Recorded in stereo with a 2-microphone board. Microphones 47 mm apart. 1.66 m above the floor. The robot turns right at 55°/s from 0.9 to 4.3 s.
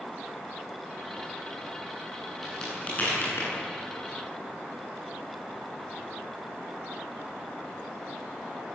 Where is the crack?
5° left (ahead or behind), 9.5 m; by 3.5 s 65° left (ahead or behind), 9.5 m.